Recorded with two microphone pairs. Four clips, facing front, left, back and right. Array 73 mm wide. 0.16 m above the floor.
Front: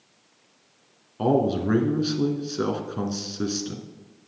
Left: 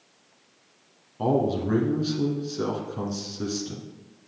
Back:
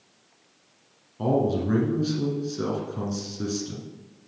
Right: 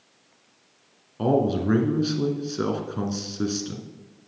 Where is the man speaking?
50° right, 1.5 m.